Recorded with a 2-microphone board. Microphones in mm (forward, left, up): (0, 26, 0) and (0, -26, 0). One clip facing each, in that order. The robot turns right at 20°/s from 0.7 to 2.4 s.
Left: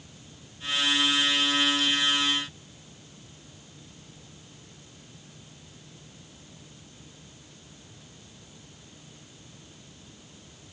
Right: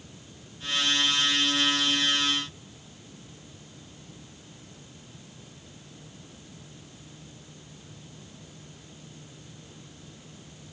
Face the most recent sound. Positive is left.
No sound to turn to.